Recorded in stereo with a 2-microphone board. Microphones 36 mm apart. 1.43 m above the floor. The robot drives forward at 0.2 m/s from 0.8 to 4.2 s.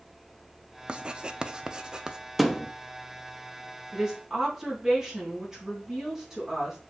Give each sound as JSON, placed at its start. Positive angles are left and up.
{"t": 0.9, "sound": "writing", "side_deg": -30, "distance_m": 0.6}
{"t": 2.4, "sound": "a thud", "side_deg": 0, "distance_m": 0.7}
{"t": 3.9, "sound": "a woman speaking", "side_deg": -20, "distance_m": 3.0}